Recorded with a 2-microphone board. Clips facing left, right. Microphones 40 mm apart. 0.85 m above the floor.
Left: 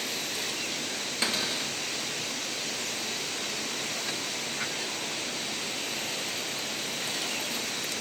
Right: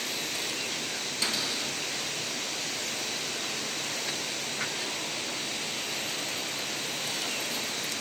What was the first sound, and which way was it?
A cupboard door, 35° left (ahead or behind).